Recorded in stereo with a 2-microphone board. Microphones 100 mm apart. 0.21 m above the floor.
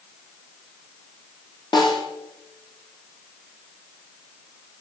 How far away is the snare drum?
About 3.5 m.